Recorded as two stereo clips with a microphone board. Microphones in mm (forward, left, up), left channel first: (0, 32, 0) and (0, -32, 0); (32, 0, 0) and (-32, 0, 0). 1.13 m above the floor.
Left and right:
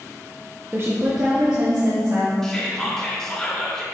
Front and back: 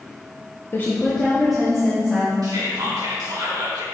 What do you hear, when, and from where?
0.7 s a woman speaking: 40° right, 0.8 m; by 2.3 s 105° right, 2.5 m
2.4 s whispering: 170° left, 2 m